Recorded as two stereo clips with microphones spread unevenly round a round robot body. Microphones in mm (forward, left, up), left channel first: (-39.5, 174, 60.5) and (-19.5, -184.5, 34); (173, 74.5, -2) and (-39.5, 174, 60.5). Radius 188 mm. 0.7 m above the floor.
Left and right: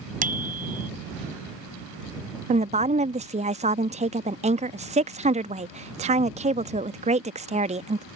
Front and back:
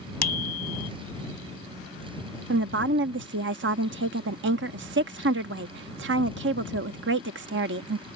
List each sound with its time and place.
0.2 s a bicycle bell: 15° right
2.5 s a woman speaking: 150° right